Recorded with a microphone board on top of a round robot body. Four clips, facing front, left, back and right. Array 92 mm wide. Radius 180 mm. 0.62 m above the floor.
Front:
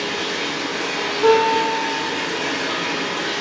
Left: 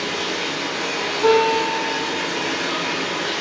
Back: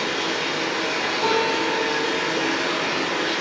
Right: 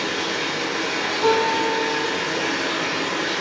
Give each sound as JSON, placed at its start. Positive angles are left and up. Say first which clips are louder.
{"t": 0.0, "sound": "running water", "louder": "even, even", "azimuth_deg": -155, "distance_m": 0.9}
{"t": 1.2, "sound": "a guitar", "louder": "left 3 dB, front 8 dB", "azimuth_deg": -160, "distance_m": 1.6}